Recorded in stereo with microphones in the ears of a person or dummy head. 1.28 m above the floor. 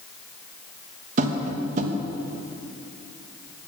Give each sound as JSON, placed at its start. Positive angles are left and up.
{"t": 1.2, "sound": "tapping", "side_deg": -40, "distance_m": 1.3}